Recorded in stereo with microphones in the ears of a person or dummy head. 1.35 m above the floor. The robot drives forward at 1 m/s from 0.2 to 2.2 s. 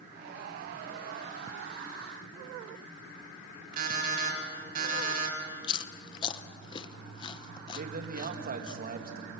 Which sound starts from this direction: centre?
Chewing, at 5.6 s.